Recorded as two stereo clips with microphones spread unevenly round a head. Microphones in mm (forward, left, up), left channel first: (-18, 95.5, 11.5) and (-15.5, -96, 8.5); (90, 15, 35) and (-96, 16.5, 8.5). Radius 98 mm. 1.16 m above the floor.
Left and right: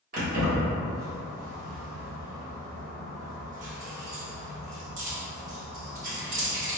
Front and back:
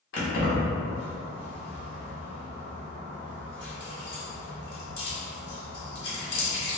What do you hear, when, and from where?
0.1 s keys jangling: 35° right, 1.1 m